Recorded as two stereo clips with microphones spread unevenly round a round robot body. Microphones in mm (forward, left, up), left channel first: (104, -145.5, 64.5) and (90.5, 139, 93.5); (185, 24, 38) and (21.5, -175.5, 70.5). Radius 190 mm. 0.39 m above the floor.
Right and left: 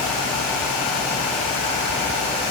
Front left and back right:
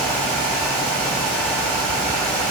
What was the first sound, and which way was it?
Only background noise.